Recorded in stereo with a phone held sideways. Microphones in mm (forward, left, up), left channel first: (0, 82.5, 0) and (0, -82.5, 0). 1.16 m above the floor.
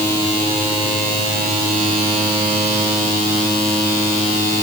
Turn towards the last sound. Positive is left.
No sound to turn to.